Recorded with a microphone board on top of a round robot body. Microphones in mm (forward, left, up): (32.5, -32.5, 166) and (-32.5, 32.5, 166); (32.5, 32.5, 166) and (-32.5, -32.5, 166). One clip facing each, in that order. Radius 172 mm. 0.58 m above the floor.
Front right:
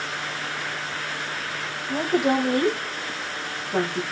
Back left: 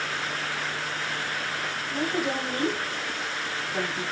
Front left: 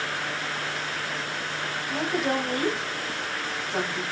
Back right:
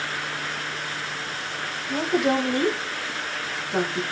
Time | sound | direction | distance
1.9 | a woman speaking | 60° right | 9 m